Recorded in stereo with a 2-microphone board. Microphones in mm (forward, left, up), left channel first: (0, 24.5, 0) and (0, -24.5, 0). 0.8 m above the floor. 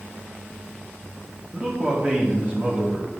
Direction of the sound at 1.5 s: 30° right (ahead or behind).